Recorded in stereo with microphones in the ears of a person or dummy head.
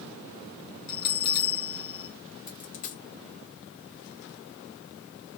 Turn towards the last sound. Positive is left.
turn(degrees=45)  # may be behind; listen again after turning